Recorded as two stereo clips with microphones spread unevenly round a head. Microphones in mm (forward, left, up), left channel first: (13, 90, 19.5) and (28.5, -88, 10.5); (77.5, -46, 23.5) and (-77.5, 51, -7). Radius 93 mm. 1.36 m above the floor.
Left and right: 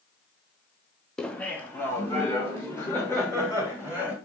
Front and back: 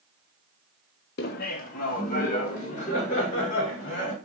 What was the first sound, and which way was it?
Laughter, 5° left.